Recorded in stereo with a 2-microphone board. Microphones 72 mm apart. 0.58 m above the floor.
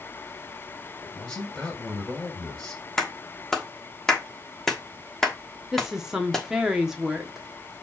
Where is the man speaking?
5° left (ahead or behind), 2.5 m.